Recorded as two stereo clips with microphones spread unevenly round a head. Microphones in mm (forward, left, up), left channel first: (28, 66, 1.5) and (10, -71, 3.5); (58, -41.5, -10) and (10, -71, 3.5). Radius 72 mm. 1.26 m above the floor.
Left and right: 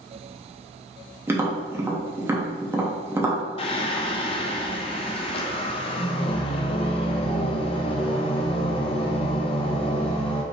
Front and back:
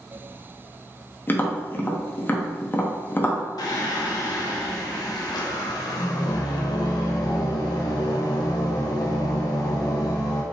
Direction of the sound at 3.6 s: 35° left.